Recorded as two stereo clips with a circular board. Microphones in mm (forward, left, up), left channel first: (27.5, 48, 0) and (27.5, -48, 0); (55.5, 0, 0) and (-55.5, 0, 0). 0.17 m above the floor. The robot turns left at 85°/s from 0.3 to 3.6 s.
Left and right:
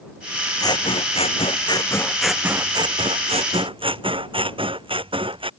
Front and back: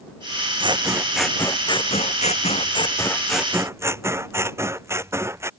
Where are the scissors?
140° left; by 5.5 s 115° right.